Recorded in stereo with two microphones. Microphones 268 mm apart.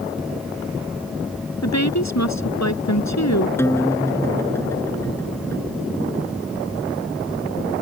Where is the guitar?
10° left (ahead or behind).